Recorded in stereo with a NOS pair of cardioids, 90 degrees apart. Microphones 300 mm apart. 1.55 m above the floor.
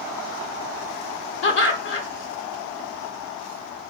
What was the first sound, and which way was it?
Laughter, 45° left.